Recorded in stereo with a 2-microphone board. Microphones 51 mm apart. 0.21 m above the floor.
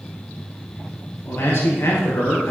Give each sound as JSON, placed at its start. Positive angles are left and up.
{"t": 1.2, "sound": "a man speaking", "side_deg": 55, "distance_m": 3.0}